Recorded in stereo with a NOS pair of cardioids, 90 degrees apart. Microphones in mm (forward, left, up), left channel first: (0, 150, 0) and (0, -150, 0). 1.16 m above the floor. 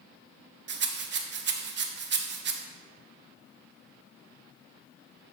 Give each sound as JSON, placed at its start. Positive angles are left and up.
{"t": 0.7, "sound": "a rattle", "azimuth_deg": -40, "distance_m": 1.0}